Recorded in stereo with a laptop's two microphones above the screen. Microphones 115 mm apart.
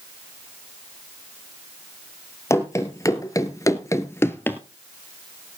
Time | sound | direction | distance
2.5 | running footsteps | 25° left (ahead or behind) | 1.7 m